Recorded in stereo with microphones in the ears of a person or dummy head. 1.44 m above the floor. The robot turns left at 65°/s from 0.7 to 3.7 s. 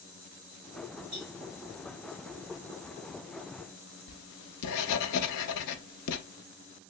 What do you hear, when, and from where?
1.1 s a cowbell: 55° right (ahead or behind), 2 m; by 1.4 s 45° right (ahead or behind), 2 m
4.1 s writing: 70° left (ahead or behind), 0.5 m